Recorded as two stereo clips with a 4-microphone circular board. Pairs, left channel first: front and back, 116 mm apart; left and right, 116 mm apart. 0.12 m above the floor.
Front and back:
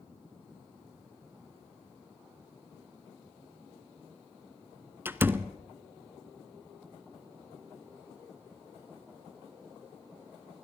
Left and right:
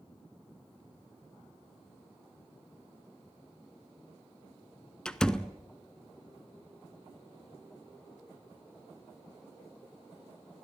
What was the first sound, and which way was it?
A door slam, 160° left.